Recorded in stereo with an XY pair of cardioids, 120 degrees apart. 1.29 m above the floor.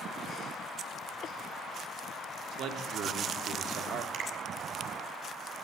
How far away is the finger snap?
About 7 m.